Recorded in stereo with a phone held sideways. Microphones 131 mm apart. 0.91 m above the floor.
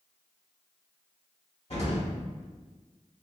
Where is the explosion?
50° left (ahead or behind), 1.5 m.